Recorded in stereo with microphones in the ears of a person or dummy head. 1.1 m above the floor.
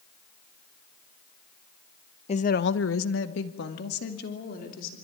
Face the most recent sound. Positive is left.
turn(degrees=60)  # may be behind; listen again after turning